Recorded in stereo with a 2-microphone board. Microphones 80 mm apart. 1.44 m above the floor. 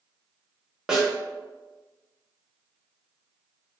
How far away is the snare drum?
About 0.9 m.